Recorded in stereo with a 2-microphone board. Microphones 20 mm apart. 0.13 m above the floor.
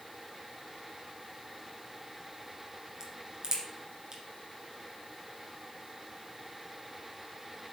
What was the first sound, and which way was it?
A crack, 35° right (ahead or behind).